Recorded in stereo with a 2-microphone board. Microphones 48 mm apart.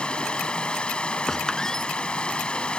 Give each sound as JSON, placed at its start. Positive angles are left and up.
{"t": 0.0, "sound": "running water", "side_deg": 20}
{"t": 1.3, "sound": "a squeak", "side_deg": 10}